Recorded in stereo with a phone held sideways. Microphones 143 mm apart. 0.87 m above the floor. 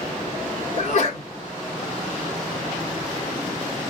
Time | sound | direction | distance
0.8 | a sneeze | 60° left (ahead or behind) | 2 m